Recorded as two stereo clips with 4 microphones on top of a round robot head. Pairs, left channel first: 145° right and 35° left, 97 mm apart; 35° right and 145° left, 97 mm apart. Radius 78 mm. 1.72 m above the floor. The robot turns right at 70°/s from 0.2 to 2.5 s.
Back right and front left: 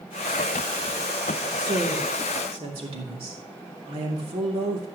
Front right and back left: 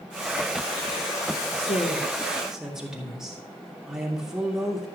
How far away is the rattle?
No rattle in this recording.